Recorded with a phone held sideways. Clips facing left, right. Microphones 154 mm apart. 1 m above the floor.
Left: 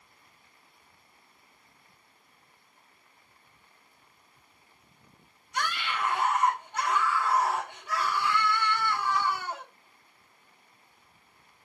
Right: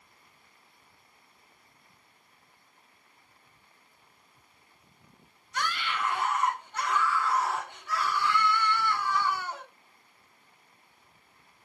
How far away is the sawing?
No sawing in this recording.